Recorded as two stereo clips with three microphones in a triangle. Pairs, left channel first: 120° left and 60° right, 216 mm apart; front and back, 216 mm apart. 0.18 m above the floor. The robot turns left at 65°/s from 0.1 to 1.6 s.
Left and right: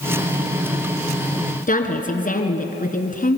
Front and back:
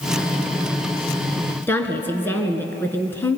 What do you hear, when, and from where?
1.7 s a woman speaking: 80° left, 2.5 m